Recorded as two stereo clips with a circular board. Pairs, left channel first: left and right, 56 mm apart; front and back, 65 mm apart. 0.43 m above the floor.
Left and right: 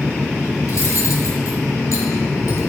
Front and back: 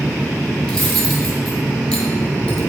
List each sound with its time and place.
0.7 s cutlery clinking: 70° left, 2 m